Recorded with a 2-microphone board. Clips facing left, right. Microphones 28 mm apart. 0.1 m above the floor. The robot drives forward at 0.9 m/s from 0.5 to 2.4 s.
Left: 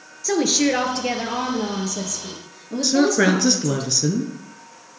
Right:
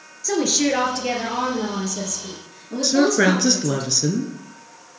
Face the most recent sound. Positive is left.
turn(degrees=0)  # may be behind; listen again after turning